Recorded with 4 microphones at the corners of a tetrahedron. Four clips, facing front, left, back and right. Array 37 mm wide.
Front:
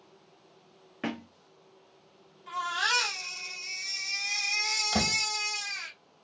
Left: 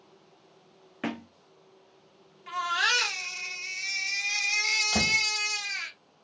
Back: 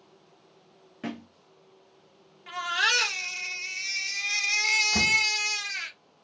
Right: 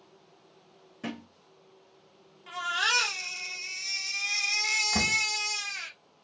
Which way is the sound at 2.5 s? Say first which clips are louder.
Left 2 dB, back 3 dB; 145° left.